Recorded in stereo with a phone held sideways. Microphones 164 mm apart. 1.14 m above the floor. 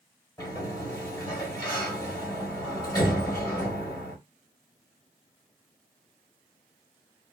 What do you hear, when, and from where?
0.4 s a sliding door: 25° left (ahead or behind), 1.9 m